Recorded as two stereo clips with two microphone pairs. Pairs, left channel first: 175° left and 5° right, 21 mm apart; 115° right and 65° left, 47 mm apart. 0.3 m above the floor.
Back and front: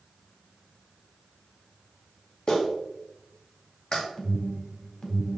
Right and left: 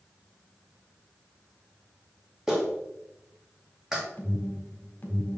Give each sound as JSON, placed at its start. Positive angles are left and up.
{"t": 2.5, "sound": "a clap", "azimuth_deg": 140, "distance_m": 1.6}
{"t": 4.2, "sound": "an alarm", "azimuth_deg": -160, "distance_m": 1.7}